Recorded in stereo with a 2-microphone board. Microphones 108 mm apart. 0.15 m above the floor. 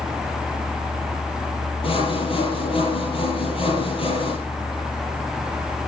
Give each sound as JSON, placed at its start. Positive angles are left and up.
{"t": 1.8, "sound": "sawing", "side_deg": 60, "distance_m": 4.0}